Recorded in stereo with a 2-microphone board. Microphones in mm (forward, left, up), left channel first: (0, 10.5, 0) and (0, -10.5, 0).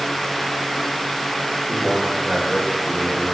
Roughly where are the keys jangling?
No keys jangling in this recording.